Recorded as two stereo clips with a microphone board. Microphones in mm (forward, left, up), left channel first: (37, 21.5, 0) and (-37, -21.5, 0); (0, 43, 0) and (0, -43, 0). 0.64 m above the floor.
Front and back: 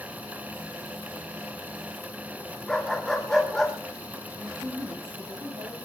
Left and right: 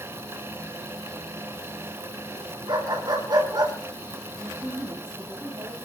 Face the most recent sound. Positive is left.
turn(degrees=-170)